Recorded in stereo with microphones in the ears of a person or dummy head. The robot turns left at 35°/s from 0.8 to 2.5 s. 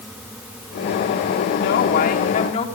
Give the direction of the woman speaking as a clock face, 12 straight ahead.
10 o'clock.